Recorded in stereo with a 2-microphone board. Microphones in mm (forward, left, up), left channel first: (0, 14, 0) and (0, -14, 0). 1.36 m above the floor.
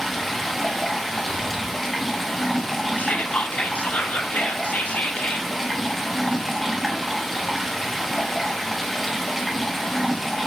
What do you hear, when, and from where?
0.0 s running water: 5° left (ahead or behind), 1.1 m
1.2 s breathing: 75° right (ahead or behind), 1.4 m
3.0 s whispering: 60° left (ahead or behind), 0.5 m